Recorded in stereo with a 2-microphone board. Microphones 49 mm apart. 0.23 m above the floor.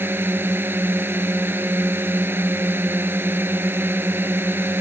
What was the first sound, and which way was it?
A drone, 45° right (ahead or behind).